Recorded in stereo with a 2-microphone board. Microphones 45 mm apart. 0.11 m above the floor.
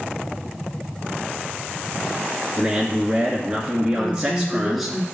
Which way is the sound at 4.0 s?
Centre (ahead or behind).